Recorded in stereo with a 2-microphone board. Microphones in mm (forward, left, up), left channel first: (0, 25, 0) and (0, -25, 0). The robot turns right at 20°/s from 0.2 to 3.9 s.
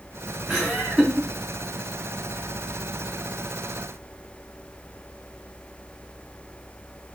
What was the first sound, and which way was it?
Laughter, 5° right (ahead or behind).